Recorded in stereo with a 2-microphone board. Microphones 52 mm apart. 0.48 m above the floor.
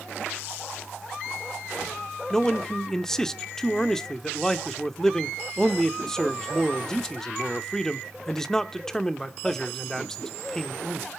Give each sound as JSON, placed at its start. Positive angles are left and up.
{"t": 2.3, "sound": "a man speaking", "side_deg": 10, "distance_m": 0.8}